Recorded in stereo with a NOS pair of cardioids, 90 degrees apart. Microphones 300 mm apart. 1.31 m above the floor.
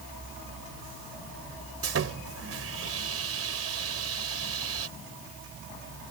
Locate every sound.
1.8 s sawing: 50° right